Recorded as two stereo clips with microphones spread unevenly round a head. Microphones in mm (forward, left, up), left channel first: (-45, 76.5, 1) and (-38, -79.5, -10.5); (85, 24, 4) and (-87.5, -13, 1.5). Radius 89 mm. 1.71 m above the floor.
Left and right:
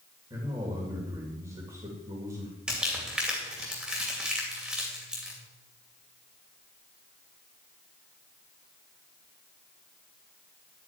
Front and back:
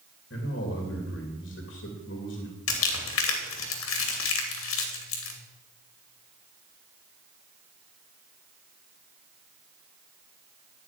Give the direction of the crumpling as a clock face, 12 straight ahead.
12 o'clock.